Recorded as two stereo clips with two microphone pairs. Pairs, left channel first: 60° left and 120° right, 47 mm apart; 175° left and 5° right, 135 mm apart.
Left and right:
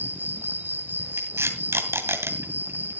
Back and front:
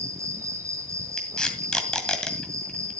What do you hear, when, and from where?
0.0 s an insect: 75° right, 2.5 m
1.2 s tape being pulled: 105° right, 2 m